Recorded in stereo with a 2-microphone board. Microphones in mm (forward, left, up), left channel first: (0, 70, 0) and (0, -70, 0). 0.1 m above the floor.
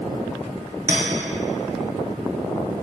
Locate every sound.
0.9 s a clink: 20° right (ahead or behind), 1.0 m